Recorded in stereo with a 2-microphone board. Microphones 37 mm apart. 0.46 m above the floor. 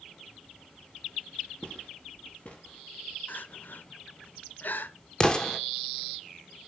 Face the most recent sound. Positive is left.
turn(degrees=25)  # may be behind; listen again after turning